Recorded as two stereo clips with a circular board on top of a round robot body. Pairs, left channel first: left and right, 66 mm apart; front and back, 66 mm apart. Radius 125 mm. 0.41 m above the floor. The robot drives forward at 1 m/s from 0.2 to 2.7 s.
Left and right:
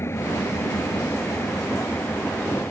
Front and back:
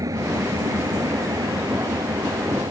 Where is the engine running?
140° left; by 2.7 s 160° left.